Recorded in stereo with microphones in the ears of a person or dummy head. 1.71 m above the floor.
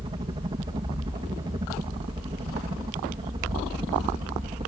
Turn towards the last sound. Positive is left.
turn(degrees=-20)  # may be behind; listen again after turning